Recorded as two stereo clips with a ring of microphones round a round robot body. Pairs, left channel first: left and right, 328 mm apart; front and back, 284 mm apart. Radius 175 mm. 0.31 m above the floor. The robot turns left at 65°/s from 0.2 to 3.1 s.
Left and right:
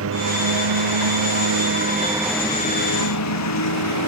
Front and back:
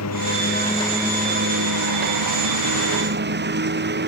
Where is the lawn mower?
40° right; by 4.1 s 130° left.